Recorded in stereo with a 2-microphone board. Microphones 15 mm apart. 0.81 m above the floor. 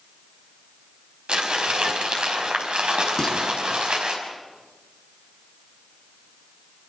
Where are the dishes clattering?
25° left (ahead or behind), 6 m.